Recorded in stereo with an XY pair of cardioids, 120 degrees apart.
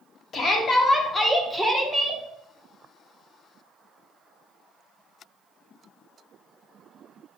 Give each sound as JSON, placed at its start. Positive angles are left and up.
{"t": 0.3, "sound": "a shout", "azimuth_deg": 45, "distance_m": 1.1}